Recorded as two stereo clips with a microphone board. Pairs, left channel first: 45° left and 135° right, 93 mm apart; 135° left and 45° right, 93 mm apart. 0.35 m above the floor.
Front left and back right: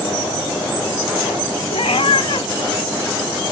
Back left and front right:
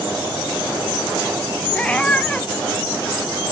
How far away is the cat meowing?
About 0.6 m.